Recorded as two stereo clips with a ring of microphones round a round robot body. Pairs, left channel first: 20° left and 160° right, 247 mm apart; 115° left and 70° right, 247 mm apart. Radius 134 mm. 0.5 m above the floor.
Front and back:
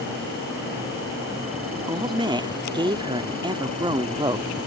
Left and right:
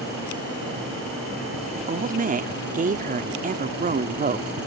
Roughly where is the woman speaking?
Right.